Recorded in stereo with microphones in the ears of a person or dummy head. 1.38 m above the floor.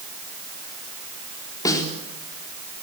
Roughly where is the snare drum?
Centre.